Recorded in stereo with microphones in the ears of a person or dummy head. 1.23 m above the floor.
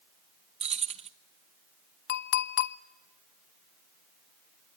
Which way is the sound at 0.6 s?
35° right (ahead or behind).